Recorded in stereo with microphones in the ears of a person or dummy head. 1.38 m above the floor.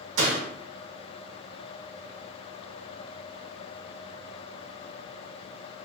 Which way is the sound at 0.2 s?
75° right (ahead or behind).